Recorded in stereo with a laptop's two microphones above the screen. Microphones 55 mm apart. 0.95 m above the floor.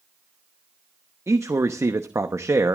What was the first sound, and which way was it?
A man speaking, 60° right (ahead or behind).